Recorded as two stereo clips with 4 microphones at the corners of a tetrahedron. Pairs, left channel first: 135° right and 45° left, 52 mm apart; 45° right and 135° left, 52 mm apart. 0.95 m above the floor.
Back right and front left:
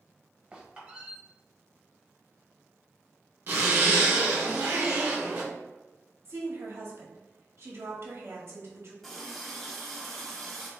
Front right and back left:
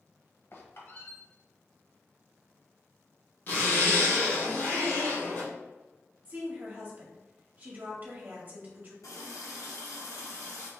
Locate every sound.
0.5 s a squeak: 20° right, 1.1 m
3.5 s a zipper: straight ahead, 1.7 m
6.2 s a woman speaking: 80° left, 1.5 m
9.0 s a running tap: 50° right, 1.1 m